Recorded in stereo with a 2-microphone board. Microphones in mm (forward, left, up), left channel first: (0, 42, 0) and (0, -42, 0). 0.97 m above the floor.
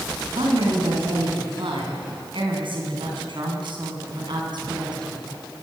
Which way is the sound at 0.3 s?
85° right.